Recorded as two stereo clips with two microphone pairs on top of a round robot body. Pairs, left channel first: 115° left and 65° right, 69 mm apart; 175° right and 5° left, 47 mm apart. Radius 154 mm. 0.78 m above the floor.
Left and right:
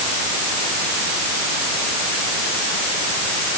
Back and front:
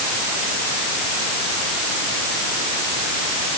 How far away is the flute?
No flute in this recording.